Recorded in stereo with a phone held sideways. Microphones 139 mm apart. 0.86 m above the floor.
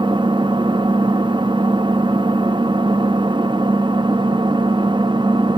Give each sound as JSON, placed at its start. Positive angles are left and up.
{"t": 0.0, "sound": "an engine running", "side_deg": -35, "distance_m": 0.8}